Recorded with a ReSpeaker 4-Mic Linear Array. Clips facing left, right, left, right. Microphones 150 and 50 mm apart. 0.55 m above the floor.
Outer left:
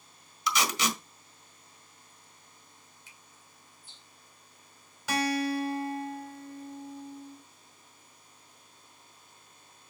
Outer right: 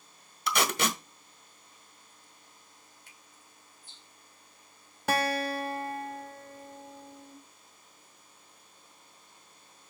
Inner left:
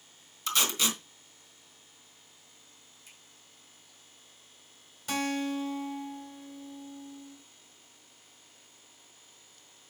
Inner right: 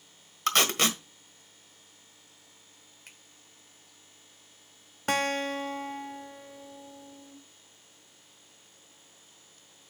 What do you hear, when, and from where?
0.5 s tape being pulled: 50° right (ahead or behind), 1.5 m
3.1 s a finger snap: 55° right (ahead or behind), 1.9 m
5.1 s a guitar: 50° right (ahead or behind), 1.5 m